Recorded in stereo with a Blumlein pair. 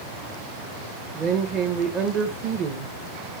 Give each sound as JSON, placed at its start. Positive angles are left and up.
{"t": 1.1, "sound": "a woman speaking", "azimuth_deg": -30, "distance_m": 1.0}